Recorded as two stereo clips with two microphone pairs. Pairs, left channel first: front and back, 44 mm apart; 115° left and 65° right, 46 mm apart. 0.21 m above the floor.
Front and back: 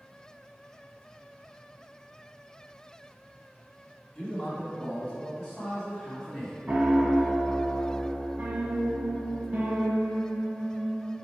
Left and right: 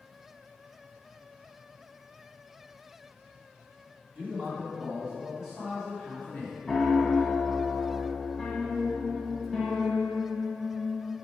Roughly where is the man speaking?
Right.